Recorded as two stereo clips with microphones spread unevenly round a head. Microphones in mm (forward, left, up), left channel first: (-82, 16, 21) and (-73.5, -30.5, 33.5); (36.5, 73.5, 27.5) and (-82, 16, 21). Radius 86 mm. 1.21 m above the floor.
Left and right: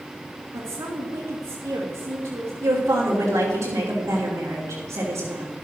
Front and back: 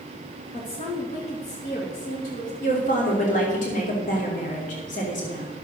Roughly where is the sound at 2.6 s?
Ahead.